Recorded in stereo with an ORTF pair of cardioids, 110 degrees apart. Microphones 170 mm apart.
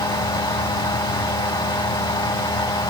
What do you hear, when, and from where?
0.0 s a fan: 30° left, 3 m